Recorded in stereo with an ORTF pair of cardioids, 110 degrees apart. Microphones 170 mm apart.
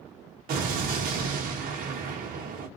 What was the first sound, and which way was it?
An explosion, 60° right.